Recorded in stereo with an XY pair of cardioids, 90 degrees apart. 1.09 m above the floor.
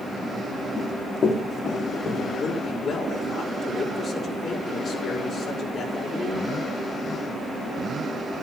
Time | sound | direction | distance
0.8 | running footsteps | 60° left | 3.5 m
2.4 | a man speaking | 65° left | 4.5 m